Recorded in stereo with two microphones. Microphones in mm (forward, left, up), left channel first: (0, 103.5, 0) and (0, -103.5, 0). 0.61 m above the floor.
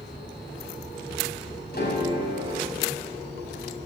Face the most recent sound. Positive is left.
turn(degrees=50)  # may be behind; listen again after turning